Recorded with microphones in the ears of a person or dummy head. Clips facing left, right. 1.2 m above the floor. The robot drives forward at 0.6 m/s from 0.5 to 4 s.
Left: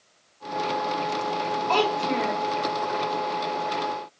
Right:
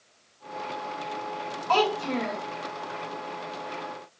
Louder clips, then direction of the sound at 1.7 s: Even; 25° left (ahead or behind).